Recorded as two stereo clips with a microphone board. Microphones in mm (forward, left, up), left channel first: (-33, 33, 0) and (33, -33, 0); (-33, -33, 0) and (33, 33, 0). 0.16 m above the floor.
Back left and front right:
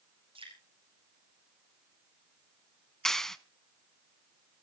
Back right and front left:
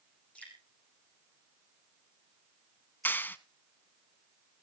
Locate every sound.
0.3 s dripping: 60° right, 5.5 m
3.0 s a clap: 150° right, 0.8 m